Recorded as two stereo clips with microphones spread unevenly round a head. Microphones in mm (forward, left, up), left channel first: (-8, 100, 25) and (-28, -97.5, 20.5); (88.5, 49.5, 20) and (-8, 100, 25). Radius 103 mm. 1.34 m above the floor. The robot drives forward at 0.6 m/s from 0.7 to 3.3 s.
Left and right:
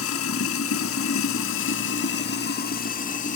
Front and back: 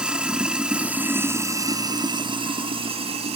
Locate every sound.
0.0 s running water: 75° left, 1.4 m; by 3.4 s 135° left, 1.8 m